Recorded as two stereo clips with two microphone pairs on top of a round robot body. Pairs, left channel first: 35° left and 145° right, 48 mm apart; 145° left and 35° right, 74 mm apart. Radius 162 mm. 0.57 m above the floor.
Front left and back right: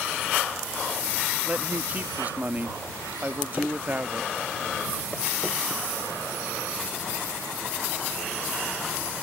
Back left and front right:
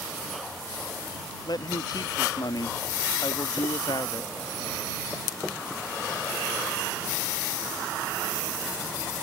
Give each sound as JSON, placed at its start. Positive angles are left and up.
{"t": 1.4, "sound": "a man speaking", "azimuth_deg": 155}